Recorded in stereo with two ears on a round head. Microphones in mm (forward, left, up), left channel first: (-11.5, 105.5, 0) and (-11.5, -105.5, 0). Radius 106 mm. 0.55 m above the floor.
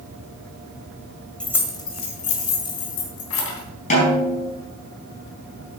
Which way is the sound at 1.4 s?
5° left (ahead or behind).